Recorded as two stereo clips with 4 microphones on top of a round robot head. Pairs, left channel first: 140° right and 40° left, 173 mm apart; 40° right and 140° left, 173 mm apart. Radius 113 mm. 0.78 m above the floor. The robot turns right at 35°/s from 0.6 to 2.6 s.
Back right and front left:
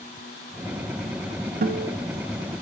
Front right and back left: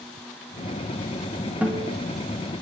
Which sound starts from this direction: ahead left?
A guitar, at 1.6 s.